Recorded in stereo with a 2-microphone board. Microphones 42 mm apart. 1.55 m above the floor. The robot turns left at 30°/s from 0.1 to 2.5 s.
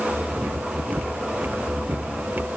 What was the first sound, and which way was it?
Only background noise.